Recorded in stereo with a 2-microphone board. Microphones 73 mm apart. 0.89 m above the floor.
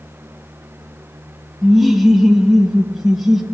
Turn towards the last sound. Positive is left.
turn(degrees=-5)  # may be behind; listen again after turning